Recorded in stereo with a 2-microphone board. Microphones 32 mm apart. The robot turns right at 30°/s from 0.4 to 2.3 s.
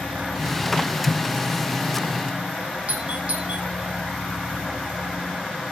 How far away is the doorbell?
About 3.5 m.